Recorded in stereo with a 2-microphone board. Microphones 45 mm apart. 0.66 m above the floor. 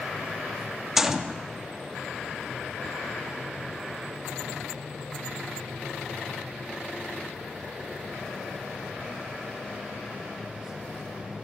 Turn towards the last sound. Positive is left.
turn(degrees=-10)  # may be behind; listen again after turning